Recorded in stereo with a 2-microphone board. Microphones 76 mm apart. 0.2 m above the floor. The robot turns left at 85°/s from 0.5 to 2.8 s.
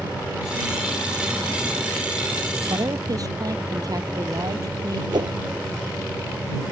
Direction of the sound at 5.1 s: 70° right (ahead or behind).